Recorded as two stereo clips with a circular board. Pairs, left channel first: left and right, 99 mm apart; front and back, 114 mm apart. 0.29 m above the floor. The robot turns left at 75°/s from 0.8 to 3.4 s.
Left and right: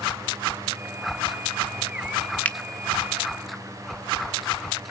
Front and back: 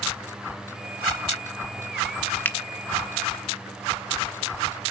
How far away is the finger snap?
About 0.7 m.